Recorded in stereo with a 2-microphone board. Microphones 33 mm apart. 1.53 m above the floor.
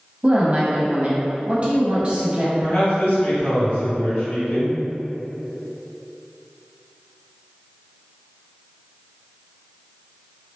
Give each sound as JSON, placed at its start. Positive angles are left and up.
{"t": 0.2, "sound": "a woman speaking", "side_deg": -35, "distance_m": 0.8}
{"t": 2.6, "sound": "a man speaking", "side_deg": 80, "distance_m": 2.0}